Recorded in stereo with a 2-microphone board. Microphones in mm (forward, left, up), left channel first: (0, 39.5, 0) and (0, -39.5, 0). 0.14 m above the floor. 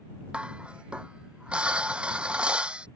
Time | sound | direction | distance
0.3 | dishes clattering | 10° right (ahead or behind) | ?